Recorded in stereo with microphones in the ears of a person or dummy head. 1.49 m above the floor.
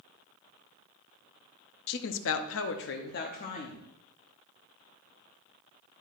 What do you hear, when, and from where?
1.9 s a woman speaking: 55° left (ahead or behind), 0.7 m; by 3.9 s 40° left (ahead or behind), 1.0 m